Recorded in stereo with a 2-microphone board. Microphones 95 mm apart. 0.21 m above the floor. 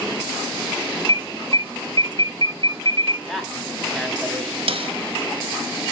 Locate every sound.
1.1 s an alarm: 45° left (ahead or behind), 1.2 m
3.3 s a man speaking: centre (ahead or behind), 1.6 m
4.7 s a snare drum: 75° right (ahead or behind), 0.8 m